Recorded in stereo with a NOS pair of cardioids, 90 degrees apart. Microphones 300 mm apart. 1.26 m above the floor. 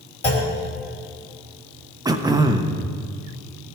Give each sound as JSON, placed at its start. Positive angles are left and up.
{"t": 0.2, "sound": "a clunk", "azimuth_deg": 50, "distance_m": 3.0}
{"t": 2.0, "sound": "throat clearing", "azimuth_deg": -15, "distance_m": 0.7}